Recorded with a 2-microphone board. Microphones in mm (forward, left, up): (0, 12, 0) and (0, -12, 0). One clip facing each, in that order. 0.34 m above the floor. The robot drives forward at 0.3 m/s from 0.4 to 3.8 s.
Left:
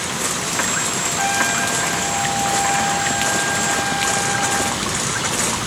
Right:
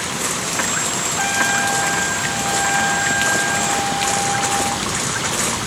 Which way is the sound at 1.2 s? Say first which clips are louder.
Right 1 dB; 15° right (ahead or behind).